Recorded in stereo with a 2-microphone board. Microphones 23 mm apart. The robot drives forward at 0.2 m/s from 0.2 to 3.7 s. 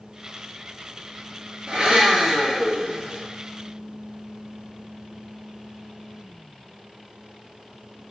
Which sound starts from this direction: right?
A blender, at 1.7 s.